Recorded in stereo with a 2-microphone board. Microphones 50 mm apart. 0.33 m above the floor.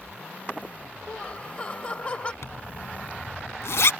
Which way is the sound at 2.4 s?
70° left (ahead or behind).